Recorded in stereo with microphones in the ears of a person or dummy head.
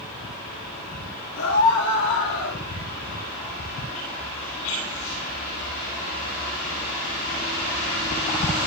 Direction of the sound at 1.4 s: 85° left.